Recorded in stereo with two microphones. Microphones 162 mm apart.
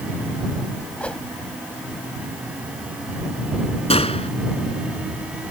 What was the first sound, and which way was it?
A whoosh, 10° left (ahead or behind).